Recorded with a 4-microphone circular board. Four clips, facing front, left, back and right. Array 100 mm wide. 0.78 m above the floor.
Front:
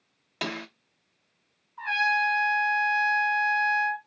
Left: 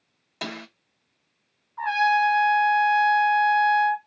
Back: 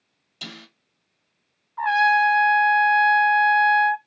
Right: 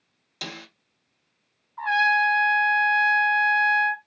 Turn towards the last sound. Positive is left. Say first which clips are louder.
# even, back 8 dB
turn(degrees=170)